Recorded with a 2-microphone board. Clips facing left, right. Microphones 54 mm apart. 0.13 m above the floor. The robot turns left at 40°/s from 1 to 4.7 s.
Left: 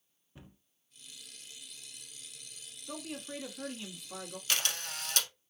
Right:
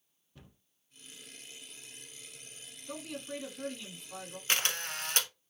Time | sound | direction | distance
0.3 | a cupboard door | 20° left (ahead or behind) | 0.8 m
2.9 | a man speaking | centre (ahead or behind) | 1.1 m
4.5 | a camera shutter | 35° right (ahead or behind) | 0.7 m